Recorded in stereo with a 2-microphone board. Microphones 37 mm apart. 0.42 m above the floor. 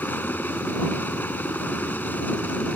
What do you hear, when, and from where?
0.0 s a helicopter: 65° left (ahead or behind); by 2.8 s 55° left (ahead or behind)